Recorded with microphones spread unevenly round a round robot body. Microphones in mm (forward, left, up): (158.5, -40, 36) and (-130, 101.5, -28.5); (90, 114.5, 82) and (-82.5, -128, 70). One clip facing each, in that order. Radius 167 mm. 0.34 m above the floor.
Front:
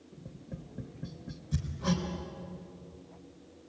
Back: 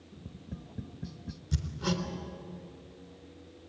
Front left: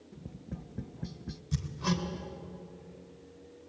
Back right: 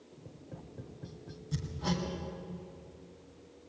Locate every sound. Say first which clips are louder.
0.1 s tapping: back 1 dB, front left 5 dB; 95° left, 0.7 m
1.5 s hammering: front 1 dB, front left 2 dB; 135° left, 3.5 m